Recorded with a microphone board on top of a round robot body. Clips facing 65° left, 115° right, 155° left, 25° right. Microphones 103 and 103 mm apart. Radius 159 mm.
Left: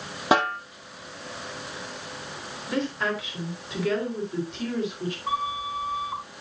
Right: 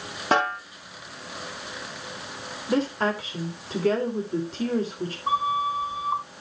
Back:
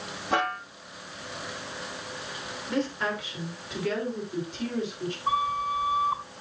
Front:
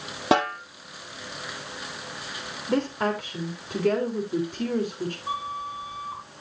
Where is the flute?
170° right, 3 m.